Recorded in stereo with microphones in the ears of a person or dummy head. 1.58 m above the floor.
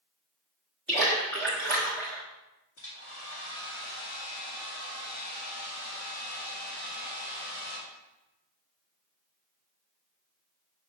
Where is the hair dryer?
70° left (ahead or behind), 2 m.